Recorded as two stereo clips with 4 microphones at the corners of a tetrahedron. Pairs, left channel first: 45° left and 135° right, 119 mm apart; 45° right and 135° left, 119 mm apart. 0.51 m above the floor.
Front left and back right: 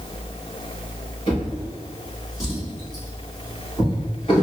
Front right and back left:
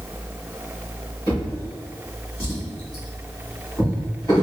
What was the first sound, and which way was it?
A drawer, 10° left.